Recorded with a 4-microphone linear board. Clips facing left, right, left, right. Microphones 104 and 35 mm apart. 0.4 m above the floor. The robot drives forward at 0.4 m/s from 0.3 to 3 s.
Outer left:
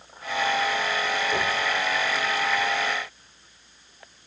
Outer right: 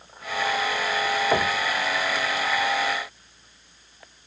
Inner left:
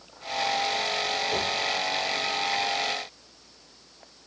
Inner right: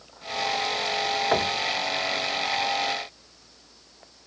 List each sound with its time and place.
1.3 s knocking: 65° right (ahead or behind), 1.4 m; by 1.6 s 70° right (ahead or behind), 1.3 m